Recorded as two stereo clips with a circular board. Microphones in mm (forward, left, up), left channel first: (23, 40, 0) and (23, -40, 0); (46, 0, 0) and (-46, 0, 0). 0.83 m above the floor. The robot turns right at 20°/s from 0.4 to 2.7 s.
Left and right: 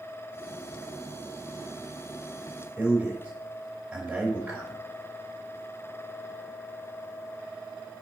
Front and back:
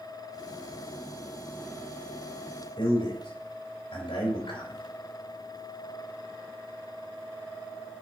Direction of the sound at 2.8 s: 15° right.